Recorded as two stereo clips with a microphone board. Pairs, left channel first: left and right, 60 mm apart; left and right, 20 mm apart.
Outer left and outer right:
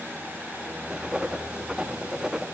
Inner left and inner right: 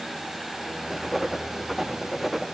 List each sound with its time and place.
0.9 s writing: 10° right (ahead or behind), 0.6 m